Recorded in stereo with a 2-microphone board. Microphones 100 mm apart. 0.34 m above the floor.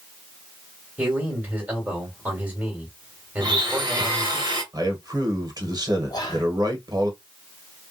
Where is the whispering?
40° left (ahead or behind), 1.6 m.